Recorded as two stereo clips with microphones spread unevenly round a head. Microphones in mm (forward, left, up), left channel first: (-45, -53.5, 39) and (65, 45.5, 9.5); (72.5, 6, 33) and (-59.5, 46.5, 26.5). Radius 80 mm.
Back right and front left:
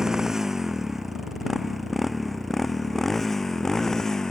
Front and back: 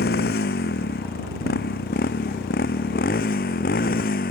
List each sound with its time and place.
0.0 s a motorcycle: 45° right; by 4.3 s 50° right